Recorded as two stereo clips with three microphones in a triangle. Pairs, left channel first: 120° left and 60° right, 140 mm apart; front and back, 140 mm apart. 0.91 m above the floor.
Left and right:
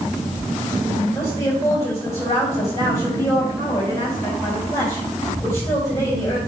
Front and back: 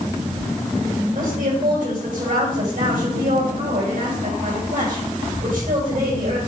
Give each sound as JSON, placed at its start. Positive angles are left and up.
{"t": 1.1, "sound": "a woman speaking", "azimuth_deg": -170, "distance_m": 4.5}